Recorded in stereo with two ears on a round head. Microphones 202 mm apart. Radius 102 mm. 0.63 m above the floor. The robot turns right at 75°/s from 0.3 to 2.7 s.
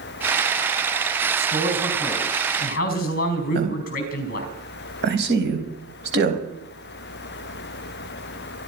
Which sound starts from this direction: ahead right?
A man speaking, at 1.4 s.